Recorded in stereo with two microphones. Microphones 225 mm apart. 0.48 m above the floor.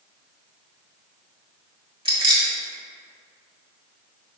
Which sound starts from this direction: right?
Keys jangling, at 2.0 s.